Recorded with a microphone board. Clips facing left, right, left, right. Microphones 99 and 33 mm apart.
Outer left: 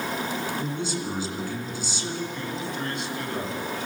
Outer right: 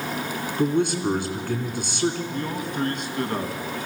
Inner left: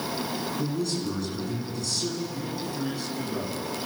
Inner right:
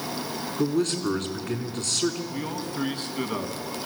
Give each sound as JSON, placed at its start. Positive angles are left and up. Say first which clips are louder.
{"t": 0.6, "sound": "a man speaking", "louder": "outer right 8 dB, inner right 8 dB", "side_deg": -60, "distance_m": 3.0}
{"t": 2.3, "sound": "a man speaking", "louder": "outer right 3 dB, inner right 1 dB", "side_deg": -50, "distance_m": 2.5}